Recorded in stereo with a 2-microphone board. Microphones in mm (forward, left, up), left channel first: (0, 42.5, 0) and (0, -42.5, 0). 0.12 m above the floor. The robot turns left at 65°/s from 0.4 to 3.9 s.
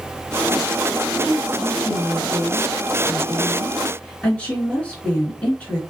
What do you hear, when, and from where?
1.2 s a woman speaking: 15° right (ahead or behind), 1.6 m; by 5.8 s 15° left (ahead or behind), 1.6 m